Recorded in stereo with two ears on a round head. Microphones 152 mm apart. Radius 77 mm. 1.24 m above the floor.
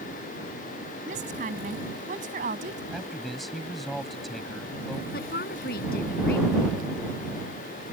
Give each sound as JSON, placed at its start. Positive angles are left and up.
{"t": 1.1, "sound": "a woman speaking", "side_deg": -45}
{"t": 2.9, "sound": "a man speaking", "side_deg": 0}
{"t": 5.1, "sound": "a woman speaking", "side_deg": 60}